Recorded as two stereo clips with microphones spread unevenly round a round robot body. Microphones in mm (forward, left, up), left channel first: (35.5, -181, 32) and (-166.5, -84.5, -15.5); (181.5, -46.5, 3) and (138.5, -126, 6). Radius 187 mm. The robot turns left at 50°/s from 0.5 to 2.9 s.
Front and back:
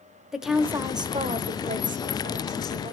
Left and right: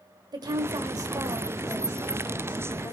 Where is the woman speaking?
130° right, 1.1 m; by 2.9 s 110° left, 1.1 m.